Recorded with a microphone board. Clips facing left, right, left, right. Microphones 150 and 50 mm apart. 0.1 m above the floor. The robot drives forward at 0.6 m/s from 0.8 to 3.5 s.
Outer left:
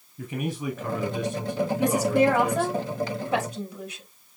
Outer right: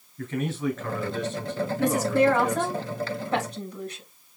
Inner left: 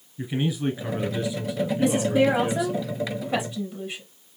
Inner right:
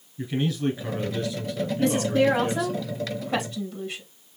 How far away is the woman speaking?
About 2 m.